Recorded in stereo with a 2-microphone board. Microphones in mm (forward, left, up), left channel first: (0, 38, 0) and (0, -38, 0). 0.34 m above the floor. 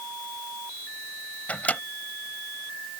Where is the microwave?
20° left (ahead or behind).